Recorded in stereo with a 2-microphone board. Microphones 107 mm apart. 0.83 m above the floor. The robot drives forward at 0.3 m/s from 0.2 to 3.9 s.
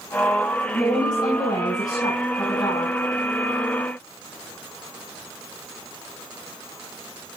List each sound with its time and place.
0.7 s a woman speaking: 50° left (ahead or behind), 7.5 m